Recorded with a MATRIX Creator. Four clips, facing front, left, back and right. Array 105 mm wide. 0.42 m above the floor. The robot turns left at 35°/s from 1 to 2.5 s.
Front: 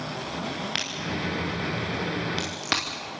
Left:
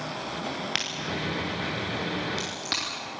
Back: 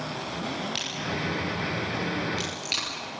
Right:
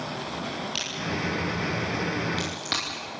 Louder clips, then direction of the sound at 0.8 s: Right 1 dB, even; 50° left.